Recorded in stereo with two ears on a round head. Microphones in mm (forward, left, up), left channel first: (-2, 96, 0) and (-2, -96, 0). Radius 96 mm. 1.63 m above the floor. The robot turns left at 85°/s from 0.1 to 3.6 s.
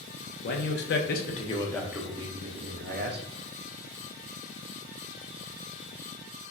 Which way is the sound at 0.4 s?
120° left.